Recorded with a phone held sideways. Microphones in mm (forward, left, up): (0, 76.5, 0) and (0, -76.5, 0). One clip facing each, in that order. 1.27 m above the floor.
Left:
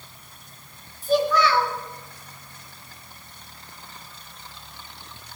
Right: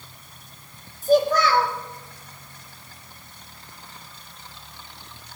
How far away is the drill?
No drill in this recording.